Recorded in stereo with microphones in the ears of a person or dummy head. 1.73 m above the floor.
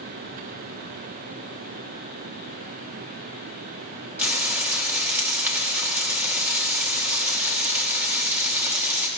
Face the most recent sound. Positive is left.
turn(degrees=-10)  # may be behind; listen again after turning